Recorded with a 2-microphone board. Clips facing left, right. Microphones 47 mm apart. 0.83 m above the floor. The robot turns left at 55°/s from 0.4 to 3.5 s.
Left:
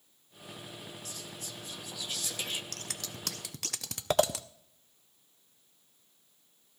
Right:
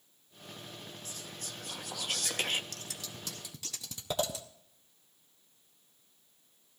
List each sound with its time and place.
1.1 s whispering: 40° right, 0.7 m; by 2.6 s 130° right, 0.7 m
2.7 s scissors: 55° left (ahead or behind), 0.6 m; by 4.5 s 75° left (ahead or behind), 0.6 m